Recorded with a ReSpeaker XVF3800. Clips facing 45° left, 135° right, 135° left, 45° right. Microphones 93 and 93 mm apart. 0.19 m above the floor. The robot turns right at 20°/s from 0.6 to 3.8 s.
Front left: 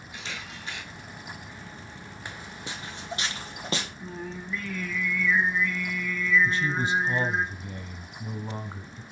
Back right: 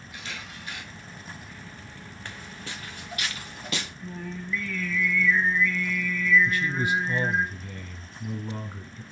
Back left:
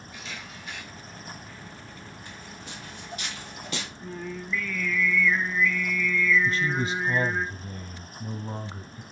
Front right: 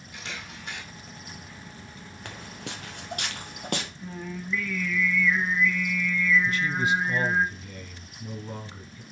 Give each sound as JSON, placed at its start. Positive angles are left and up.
{"t": 0.1, "sound": "a camera shutter", "azimuth_deg": -20, "distance_m": 3.0}
{"t": 2.2, "sound": "footsteps", "azimuth_deg": -30, "distance_m": 0.7}
{"t": 4.0, "sound": "singing", "azimuth_deg": 35, "distance_m": 1.9}
{"t": 6.5, "sound": "a man speaking", "azimuth_deg": 95, "distance_m": 1.4}